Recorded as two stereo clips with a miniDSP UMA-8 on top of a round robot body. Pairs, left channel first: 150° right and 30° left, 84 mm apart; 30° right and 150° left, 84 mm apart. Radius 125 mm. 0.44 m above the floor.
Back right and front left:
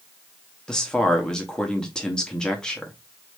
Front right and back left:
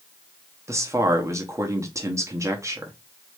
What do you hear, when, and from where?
0.7 s a man speaking: 135° left, 1.2 m